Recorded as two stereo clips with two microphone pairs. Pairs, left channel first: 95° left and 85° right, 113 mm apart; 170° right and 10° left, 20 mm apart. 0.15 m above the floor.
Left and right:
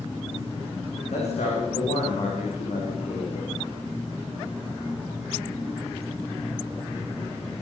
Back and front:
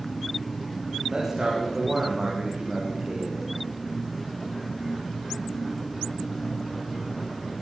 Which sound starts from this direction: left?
A man speaking, at 1.1 s.